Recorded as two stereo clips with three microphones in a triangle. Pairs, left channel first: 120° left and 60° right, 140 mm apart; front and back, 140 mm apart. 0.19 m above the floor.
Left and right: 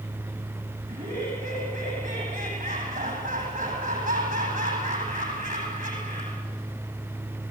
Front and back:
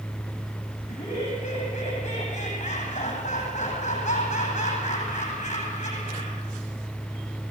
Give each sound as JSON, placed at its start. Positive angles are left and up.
{"t": 0.9, "sound": "laughter", "azimuth_deg": -40, "distance_m": 9.5}